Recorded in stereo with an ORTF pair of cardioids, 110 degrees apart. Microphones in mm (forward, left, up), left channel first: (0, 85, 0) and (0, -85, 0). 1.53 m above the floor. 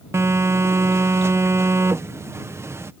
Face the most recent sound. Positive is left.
turn(degrees=-15)